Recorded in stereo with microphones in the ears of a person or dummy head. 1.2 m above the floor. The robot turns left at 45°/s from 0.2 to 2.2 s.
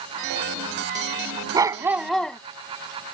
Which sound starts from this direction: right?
A dog barking, at 1.5 s.